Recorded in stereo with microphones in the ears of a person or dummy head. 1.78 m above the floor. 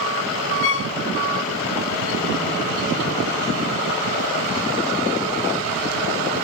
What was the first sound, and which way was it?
A violin, 60° left (ahead or behind).